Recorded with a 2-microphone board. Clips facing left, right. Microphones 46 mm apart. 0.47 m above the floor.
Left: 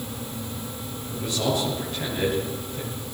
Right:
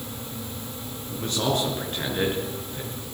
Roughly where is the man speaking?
Right.